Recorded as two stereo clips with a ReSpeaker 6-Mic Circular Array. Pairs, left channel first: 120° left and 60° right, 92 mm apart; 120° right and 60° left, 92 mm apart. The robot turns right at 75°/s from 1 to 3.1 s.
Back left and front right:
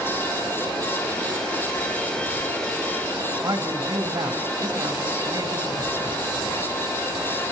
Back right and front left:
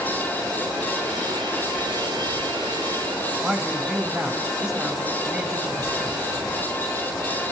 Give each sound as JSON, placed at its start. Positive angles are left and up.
{"t": 3.4, "sound": "a man speaking", "azimuth_deg": -25, "distance_m": 4.5}